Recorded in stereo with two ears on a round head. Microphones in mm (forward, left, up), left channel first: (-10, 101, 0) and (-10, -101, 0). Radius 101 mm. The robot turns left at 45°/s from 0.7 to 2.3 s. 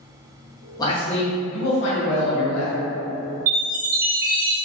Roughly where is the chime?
Right.